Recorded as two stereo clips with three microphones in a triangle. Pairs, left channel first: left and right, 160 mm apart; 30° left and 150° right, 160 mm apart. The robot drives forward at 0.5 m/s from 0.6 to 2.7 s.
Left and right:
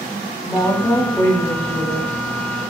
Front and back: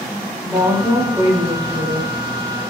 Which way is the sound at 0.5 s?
145° left.